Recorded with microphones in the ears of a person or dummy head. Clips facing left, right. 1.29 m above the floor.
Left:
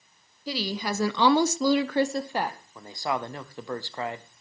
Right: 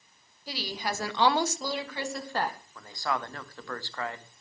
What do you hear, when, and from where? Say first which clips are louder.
0.5 s a woman speaking: left 4 dB; 60° left (ahead or behind), 1.4 m; by 2.6 s centre (ahead or behind), 0.9 m
2.8 s a man speaking: left 3 dB; 20° left (ahead or behind), 0.8 m